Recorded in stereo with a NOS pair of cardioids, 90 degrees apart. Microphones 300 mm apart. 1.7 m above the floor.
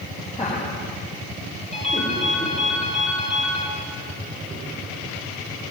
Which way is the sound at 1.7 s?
20° left.